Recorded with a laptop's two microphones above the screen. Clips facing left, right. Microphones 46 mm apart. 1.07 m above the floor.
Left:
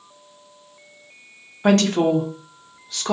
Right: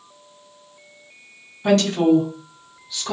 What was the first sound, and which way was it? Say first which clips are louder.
A woman speaking: even; 50° left (ahead or behind).